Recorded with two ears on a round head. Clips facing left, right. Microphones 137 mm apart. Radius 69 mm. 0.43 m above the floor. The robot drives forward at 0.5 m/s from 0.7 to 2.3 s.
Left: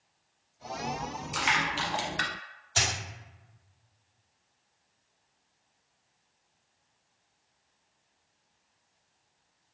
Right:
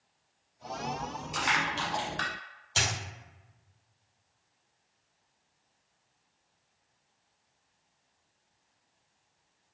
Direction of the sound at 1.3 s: 10° left (ahead or behind).